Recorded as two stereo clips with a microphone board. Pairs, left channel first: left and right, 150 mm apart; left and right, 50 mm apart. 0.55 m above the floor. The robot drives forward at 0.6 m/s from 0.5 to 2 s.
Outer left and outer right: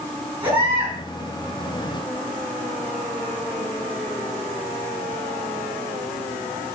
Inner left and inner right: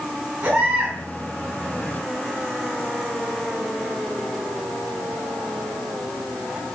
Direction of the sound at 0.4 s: 35° right (ahead or behind).